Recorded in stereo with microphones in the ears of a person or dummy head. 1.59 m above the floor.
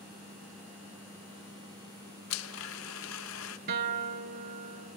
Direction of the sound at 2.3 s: 80° left.